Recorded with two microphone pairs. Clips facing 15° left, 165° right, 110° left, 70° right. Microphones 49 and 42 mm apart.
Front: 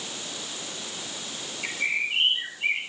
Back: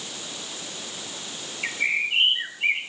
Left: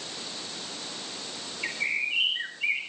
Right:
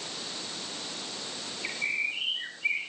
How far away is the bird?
About 6.5 m.